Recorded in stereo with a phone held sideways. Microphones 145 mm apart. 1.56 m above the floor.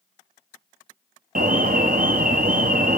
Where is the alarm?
70° right (ahead or behind), 1.0 m.